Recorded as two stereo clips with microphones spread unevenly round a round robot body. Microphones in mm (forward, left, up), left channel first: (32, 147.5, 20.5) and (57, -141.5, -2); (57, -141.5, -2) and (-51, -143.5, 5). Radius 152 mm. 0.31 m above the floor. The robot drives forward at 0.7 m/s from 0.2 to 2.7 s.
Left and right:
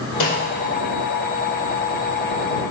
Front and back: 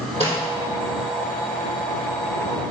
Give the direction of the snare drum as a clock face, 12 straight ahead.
9 o'clock.